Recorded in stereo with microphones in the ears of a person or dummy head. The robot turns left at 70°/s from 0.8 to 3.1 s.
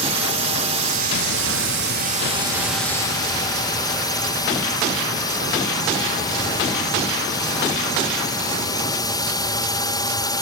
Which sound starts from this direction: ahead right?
A drone, at 0.0 s.